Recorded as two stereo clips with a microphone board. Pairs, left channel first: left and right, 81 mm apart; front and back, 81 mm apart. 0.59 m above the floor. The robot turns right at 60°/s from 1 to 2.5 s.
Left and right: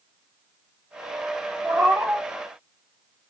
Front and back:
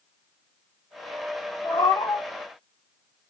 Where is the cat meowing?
25° right, 4 m; by 2.2 s 15° left, 4 m.